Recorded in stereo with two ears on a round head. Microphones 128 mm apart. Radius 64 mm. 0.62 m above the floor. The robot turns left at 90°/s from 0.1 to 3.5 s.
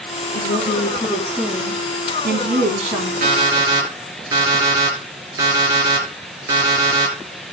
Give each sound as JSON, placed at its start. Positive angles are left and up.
{"t": 0.3, "sound": "a woman speaking", "azimuth_deg": 90, "distance_m": 4.5}
{"t": 3.2, "sound": "an alarm clock", "side_deg": -55, "distance_m": 5.5}